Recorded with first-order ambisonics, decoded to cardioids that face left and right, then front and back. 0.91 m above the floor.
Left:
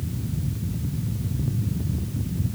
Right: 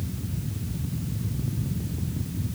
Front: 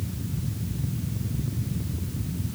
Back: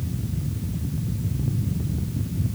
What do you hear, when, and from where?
Only background noise.